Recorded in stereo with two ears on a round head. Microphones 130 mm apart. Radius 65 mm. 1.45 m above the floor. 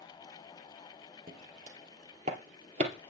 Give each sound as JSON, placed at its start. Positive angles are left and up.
{"t": 1.3, "sound": "footsteps", "side_deg": -55, "distance_m": 3.0}